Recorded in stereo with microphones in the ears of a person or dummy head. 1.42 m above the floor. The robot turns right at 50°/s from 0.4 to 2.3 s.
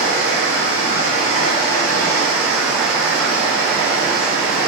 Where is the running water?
85° left, 1.8 m; by 4.7 s straight behind, 1.8 m.